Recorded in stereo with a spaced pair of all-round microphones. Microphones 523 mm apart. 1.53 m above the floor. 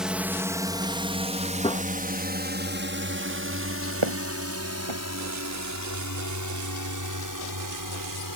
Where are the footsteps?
60° right (ahead or behind).